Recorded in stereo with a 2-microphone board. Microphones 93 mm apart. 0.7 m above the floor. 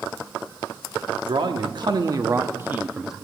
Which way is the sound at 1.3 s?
60° right (ahead or behind).